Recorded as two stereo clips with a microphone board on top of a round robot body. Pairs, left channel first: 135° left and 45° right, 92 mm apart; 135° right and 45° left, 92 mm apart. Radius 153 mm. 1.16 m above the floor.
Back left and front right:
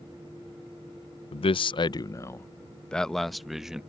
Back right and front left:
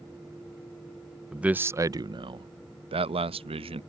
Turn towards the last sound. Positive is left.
turn(degrees=40)